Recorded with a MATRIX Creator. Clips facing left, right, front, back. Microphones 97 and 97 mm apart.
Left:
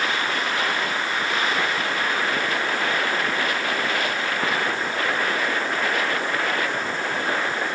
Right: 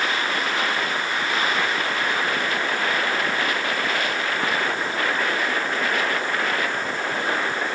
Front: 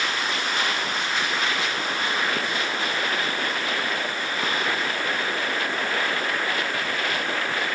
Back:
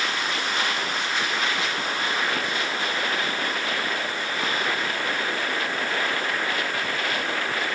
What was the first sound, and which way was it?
Only background noise.